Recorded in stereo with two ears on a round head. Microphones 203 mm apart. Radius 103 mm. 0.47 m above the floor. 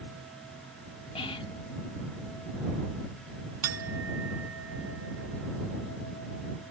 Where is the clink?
65° right (ahead or behind).